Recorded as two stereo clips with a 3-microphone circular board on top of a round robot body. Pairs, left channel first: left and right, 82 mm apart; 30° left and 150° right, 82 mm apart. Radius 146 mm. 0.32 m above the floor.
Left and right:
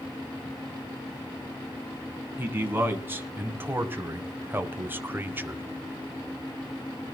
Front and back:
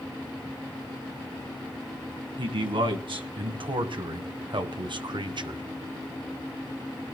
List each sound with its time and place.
2.4 s a man speaking: 155° right, 3.5 m